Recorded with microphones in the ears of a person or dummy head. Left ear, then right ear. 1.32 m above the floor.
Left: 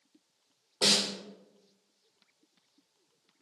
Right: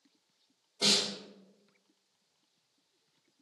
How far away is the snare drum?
About 1.1 m.